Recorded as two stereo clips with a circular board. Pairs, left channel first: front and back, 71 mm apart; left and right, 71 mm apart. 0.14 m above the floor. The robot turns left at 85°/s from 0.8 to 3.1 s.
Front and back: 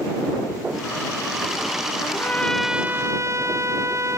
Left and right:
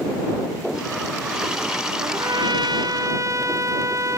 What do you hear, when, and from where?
2.0 s a trumpet: 40° right; by 4.2 s 135° right